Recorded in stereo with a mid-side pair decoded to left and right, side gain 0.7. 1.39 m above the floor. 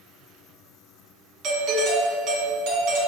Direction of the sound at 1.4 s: 50° right.